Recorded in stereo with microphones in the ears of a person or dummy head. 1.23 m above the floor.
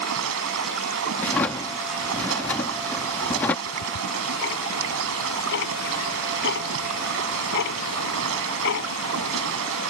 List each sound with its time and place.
0.0 s running water: 85° right
1.2 s a drawer: 10° left (ahead or behind)
3.7 s ticking: 60° left (ahead or behind)